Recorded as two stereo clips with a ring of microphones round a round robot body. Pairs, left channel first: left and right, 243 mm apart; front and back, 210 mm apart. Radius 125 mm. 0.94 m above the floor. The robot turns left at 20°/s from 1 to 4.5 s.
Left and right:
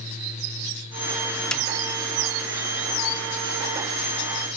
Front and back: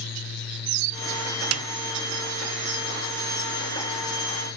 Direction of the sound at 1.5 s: 175° left.